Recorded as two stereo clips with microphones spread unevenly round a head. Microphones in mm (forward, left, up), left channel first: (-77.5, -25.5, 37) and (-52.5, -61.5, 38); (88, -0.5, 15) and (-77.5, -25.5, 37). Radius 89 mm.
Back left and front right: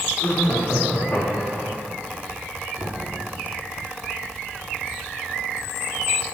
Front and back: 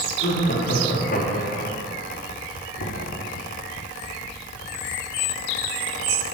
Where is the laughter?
45° left, 3.5 m; by 1.7 s 50° left, 1.8 m.